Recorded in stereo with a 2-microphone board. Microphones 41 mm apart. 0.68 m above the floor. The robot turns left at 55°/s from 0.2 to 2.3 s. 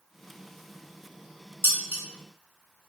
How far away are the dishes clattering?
About 0.9 m.